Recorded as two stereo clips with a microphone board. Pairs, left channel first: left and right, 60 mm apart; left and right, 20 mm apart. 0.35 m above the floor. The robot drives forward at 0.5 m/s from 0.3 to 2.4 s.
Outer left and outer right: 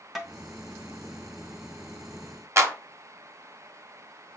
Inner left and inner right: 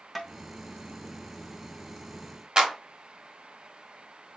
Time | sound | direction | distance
0.1 | tapping | centre (ahead or behind) | 1.1 m
2.6 | a clap | 50° right (ahead or behind) | 0.9 m